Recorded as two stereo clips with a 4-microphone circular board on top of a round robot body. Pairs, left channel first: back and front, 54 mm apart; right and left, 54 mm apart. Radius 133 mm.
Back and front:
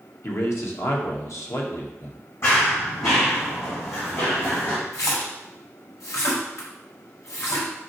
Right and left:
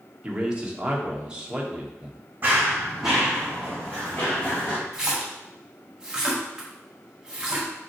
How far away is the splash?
About 1.6 m.